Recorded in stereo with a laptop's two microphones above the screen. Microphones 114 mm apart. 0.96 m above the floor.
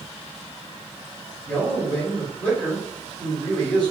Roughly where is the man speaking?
Centre.